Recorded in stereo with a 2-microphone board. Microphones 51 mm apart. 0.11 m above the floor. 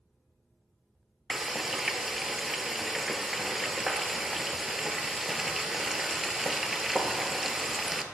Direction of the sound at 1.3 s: 5° right (ahead or behind).